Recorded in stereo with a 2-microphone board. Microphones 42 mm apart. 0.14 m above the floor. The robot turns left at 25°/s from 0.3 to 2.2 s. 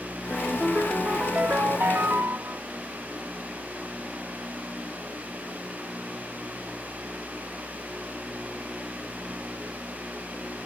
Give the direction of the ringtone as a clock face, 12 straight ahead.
1 o'clock.